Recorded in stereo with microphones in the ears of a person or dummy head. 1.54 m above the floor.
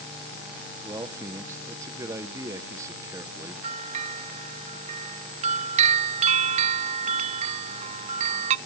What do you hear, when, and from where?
0.8 s a man speaking: 20° right (ahead or behind), 1.1 m
3.6 s a bell: 40° right (ahead or behind), 0.5 m